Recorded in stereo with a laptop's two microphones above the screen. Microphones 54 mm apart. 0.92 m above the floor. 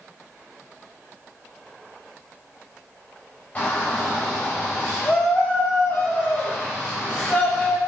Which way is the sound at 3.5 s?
30° left (ahead or behind).